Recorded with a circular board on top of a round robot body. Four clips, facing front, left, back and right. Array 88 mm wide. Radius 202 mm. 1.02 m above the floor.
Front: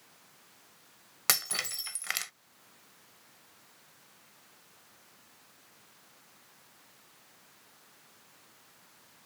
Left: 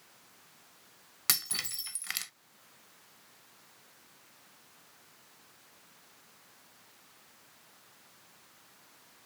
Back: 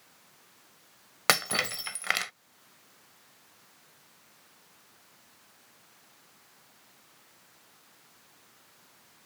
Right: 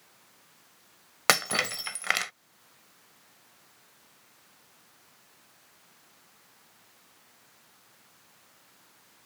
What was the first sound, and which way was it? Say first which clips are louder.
Breaking glass: right 15 dB, back 8 dB; 115° right.